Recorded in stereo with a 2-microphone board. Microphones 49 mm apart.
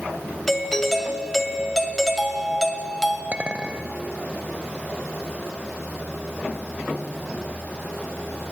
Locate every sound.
0.5 s a doorbell: 5° left (ahead or behind), 1.6 m
3.3 s a clink: 25° right (ahead or behind), 0.8 m